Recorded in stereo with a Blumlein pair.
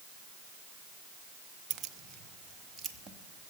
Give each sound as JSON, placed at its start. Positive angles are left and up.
{"t": 1.7, "sound": "keys jangling", "azimuth_deg": -35, "distance_m": 0.8}